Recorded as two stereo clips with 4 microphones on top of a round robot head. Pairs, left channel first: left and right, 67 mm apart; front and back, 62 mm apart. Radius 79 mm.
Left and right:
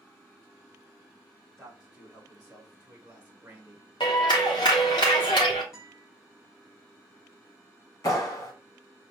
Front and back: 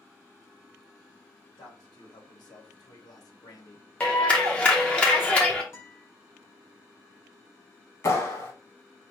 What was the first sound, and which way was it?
A man speaking, 5° left.